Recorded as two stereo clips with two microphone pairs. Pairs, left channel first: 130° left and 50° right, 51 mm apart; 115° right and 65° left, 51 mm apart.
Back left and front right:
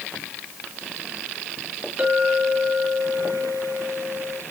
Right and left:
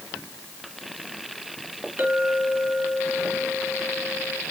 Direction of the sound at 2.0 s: 20° left.